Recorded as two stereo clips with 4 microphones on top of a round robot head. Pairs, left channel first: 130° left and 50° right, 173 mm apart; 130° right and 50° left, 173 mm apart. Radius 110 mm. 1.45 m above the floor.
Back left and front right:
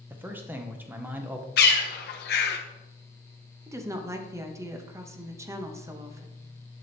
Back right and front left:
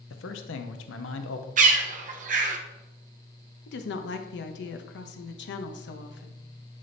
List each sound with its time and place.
0.1 s a man speaking: 130° right, 0.6 m
1.6 s a bird: 95° left, 0.7 m
3.7 s a woman speaking: 125° right, 0.7 m